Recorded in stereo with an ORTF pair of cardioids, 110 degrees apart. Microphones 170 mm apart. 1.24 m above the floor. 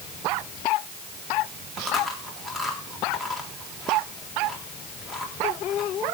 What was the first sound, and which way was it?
Chewing, straight ahead.